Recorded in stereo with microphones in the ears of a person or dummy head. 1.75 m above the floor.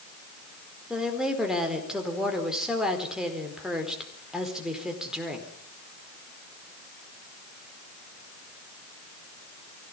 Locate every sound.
0.9 s a woman speaking: 5° right (ahead or behind), 4.5 m